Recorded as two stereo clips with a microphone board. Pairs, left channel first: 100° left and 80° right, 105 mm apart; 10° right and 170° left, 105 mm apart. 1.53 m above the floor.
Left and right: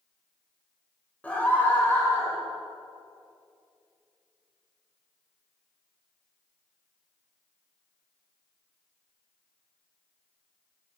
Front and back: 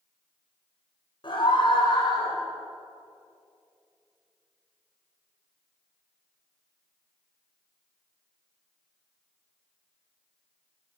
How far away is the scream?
About 5.5 m.